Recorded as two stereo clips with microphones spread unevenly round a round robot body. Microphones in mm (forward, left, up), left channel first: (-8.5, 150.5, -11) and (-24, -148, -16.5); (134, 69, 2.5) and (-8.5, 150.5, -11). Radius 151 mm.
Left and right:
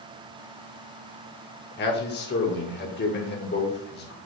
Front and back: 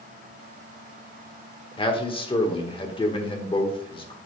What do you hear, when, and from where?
1.8 s a man speaking: 30° left, 1.7 m